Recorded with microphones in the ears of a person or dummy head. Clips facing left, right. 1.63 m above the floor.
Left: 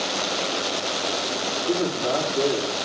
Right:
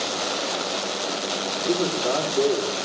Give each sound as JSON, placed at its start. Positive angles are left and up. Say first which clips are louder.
{"t": 1.7, "sound": "a man speaking", "louder": "right 1 dB", "side_deg": 10, "distance_m": 4.5}